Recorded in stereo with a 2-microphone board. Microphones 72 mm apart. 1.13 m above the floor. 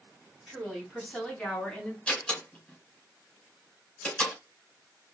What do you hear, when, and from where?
0.5 s a woman speaking: centre (ahead or behind), 4 m; by 2.0 s 10° left (ahead or behind), 3.5 m
2.1 s a door slam: 10° left (ahead or behind), 3.5 m